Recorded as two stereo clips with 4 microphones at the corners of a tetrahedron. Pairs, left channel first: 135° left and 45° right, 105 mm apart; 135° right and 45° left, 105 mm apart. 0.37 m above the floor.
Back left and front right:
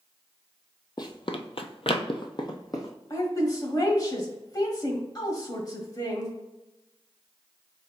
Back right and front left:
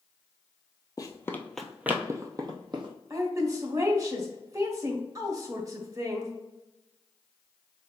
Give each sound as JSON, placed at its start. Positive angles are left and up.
{"t": 1.0, "sound": "running footsteps", "azimuth_deg": 180, "distance_m": 0.7}
{"t": 3.1, "sound": "a woman speaking", "azimuth_deg": 95, "distance_m": 1.4}